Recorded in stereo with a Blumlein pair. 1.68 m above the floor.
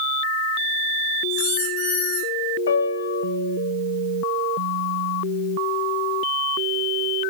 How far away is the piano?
About 1.5 m.